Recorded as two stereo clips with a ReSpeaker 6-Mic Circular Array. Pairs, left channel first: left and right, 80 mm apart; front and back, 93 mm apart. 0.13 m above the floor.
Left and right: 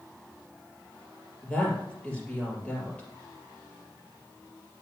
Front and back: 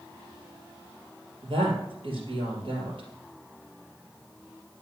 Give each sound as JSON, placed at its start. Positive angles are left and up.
{"t": 1.4, "sound": "a woman speaking", "azimuth_deg": 165, "distance_m": 3.0}